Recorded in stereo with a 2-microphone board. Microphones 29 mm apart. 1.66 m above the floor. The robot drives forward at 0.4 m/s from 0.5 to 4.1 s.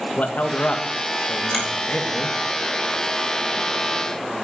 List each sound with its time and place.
0.2 s a man speaking: 80° left, 1.9 m; by 2.4 s 65° left (ahead or behind), 2 m
1.5 s a finger snap: 5° left (ahead or behind), 5.5 m